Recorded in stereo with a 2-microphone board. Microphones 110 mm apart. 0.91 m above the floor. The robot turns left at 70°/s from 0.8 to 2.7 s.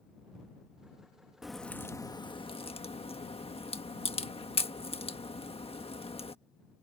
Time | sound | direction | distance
1.4 | a crack | 5° right (ahead or behind) | ?